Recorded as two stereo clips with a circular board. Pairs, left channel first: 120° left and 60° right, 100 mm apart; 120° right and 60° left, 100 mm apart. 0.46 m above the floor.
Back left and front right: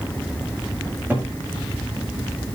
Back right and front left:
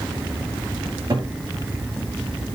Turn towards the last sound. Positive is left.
turn(degrees=15)